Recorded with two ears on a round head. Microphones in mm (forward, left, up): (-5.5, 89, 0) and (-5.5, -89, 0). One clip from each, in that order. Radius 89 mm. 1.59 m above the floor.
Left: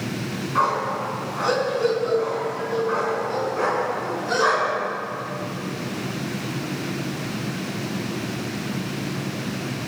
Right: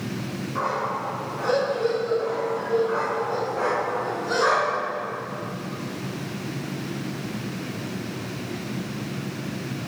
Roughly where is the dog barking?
Left.